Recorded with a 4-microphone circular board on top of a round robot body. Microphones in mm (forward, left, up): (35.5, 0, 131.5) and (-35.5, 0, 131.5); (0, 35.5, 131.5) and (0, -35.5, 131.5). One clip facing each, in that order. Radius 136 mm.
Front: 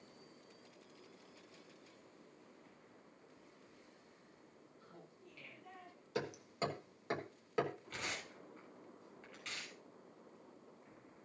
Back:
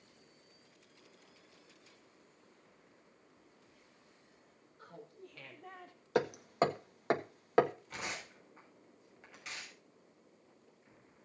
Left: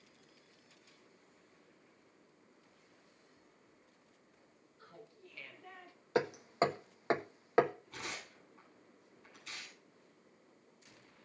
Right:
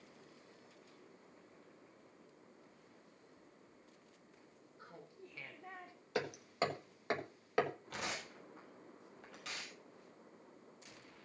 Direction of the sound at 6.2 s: 150° left.